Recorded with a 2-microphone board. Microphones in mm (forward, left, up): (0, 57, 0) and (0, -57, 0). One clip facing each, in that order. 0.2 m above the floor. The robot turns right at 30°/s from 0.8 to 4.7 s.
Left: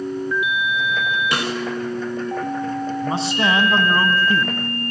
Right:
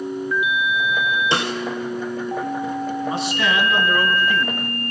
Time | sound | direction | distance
1.3 | a snare drum | 30° right (ahead or behind) | 2 m
3.0 | a man speaking | 55° left | 1.3 m